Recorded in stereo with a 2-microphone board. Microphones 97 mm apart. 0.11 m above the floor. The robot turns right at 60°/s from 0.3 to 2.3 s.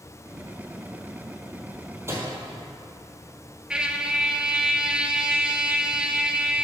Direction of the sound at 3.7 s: 10° right (ahead or behind).